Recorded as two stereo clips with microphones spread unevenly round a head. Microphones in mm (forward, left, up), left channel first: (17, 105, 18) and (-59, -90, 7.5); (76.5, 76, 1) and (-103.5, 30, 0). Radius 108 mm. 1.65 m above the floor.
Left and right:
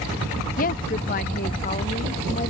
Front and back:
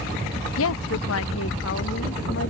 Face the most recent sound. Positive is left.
turn(degrees=15)